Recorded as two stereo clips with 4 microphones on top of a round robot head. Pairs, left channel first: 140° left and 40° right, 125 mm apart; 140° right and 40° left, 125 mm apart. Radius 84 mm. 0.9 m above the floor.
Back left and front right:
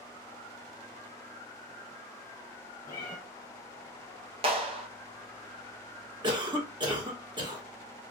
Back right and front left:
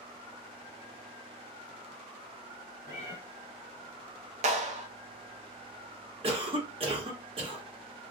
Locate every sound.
2.9 s a cat meowing: 165° right, 1.0 m
4.4 s a clap: 10° left, 0.8 m
6.2 s a cough: 5° left, 1.6 m